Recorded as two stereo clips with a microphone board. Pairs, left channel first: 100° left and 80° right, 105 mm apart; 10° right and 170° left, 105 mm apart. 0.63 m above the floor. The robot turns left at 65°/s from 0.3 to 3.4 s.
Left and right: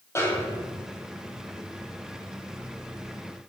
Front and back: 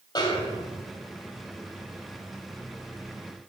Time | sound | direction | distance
0.1 | a snare drum | 35° left | 2 m